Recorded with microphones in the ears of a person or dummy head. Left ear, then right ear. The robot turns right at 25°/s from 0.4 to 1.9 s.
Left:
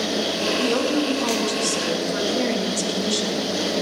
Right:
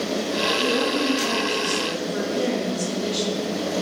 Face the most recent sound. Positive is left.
turn(degrees=100)